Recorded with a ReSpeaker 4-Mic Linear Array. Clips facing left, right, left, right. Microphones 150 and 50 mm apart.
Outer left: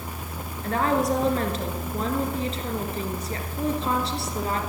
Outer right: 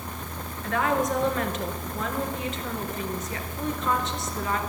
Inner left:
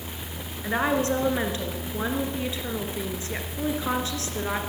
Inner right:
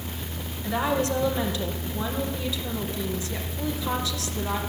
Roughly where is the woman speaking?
Left.